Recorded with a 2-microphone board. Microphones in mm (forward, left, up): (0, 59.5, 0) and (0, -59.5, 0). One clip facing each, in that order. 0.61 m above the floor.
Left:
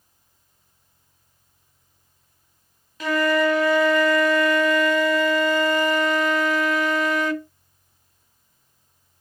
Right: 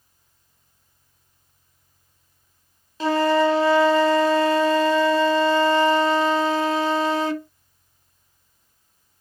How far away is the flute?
About 0.5 m.